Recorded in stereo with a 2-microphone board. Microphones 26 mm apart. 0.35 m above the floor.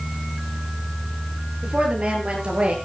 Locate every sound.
1.6 s a woman speaking: 40° right (ahead or behind), 7.5 m; by 2.8 s 50° right (ahead or behind), 6 m